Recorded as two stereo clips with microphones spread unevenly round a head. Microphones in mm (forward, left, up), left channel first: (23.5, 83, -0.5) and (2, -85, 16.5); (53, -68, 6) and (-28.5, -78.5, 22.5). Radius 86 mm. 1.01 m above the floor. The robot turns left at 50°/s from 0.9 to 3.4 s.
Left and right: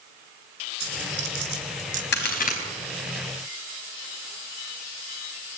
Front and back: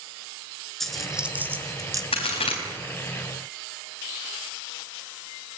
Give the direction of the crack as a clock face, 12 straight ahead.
10 o'clock.